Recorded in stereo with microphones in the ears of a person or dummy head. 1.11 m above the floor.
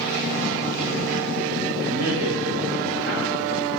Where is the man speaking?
80° right, 4.5 m.